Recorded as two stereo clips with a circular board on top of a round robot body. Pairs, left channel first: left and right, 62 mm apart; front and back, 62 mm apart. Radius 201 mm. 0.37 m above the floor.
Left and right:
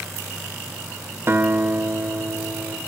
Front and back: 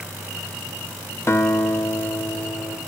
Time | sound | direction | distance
1.3 | a guitar | 40° right | 1.4 m